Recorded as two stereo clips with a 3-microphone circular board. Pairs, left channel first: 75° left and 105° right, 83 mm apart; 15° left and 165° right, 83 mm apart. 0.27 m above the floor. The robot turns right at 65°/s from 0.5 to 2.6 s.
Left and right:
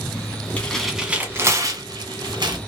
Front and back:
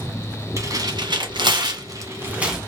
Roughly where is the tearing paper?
Behind left.